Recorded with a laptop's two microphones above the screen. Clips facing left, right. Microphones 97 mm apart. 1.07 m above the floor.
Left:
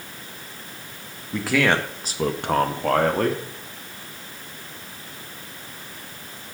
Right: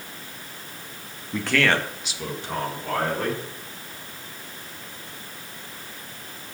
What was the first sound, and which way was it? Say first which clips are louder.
A man speaking: left 2 dB; centre (ahead or behind).